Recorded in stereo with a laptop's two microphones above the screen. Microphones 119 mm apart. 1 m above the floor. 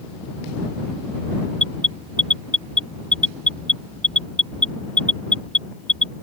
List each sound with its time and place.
1.6 s an alarm: 10° left (ahead or behind)